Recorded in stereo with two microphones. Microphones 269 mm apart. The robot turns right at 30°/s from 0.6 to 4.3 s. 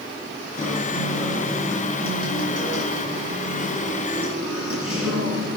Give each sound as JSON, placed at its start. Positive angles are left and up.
{"t": 0.6, "sound": "a guitar", "azimuth_deg": -170, "distance_m": 6.0}